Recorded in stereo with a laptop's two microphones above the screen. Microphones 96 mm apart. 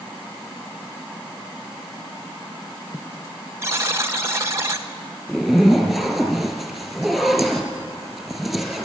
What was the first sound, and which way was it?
A buzzer, 30° right (ahead or behind).